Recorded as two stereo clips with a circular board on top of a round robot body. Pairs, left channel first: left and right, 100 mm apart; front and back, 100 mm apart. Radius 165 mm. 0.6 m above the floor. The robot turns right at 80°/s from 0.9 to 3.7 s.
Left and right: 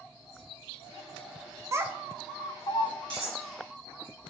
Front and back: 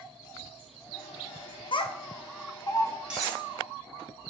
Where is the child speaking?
30° right, 0.6 m; by 2.9 s 65° left, 0.6 m.